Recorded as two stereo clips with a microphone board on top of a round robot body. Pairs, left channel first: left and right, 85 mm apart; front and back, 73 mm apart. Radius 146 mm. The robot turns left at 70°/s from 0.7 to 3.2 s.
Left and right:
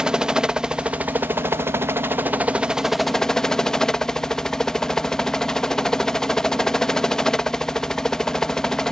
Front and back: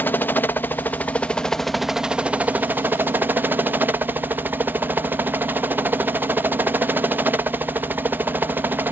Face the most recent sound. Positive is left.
turn(degrees=165)